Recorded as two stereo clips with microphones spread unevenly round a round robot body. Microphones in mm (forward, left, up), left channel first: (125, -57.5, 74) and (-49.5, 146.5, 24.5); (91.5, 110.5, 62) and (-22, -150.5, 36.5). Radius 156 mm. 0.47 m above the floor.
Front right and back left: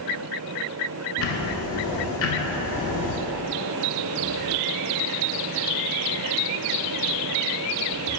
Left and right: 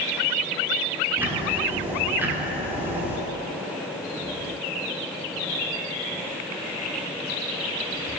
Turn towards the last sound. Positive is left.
turn(degrees=-40)